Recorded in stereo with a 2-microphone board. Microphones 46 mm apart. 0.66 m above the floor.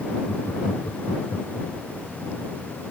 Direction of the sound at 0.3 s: 65° left (ahead or behind).